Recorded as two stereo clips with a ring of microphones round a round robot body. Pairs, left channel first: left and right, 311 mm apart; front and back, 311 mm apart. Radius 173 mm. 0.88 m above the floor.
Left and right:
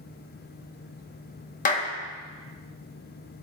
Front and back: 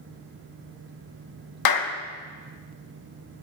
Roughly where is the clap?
Ahead left.